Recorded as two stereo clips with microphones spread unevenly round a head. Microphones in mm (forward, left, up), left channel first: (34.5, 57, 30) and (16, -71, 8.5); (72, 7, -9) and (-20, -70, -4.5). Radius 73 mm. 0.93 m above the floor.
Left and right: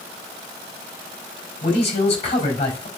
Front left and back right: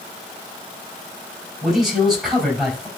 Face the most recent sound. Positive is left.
turn(degrees=135)